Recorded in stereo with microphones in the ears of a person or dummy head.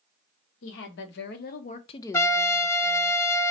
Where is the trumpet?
10° left (ahead or behind), 0.7 m.